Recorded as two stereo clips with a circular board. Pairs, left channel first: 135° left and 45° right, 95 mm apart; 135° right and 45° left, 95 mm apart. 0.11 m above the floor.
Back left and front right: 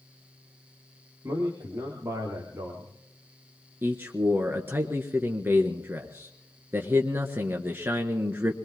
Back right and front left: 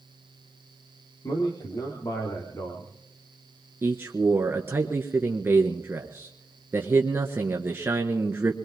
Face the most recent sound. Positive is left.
turn(degrees=0)